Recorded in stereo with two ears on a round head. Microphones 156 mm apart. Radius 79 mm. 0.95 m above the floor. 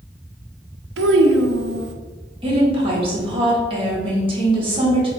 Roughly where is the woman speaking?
Right.